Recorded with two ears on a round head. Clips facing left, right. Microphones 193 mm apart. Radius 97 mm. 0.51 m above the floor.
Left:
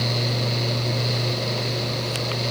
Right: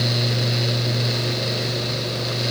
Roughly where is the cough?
I don't hear a cough.